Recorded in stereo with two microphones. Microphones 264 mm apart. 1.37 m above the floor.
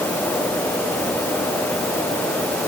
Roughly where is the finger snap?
No finger snap in this recording.